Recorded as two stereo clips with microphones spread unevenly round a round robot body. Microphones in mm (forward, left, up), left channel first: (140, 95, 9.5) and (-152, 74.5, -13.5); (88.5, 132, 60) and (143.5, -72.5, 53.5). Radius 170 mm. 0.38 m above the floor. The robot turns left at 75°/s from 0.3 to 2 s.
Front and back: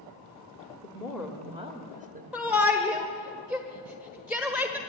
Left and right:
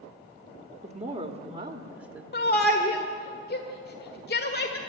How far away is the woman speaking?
About 1.4 m.